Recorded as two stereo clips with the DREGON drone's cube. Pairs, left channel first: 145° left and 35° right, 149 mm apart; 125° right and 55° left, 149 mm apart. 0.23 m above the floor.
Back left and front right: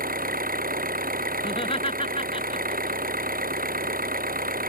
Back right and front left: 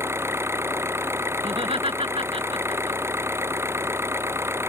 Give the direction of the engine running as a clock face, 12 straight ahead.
1 o'clock.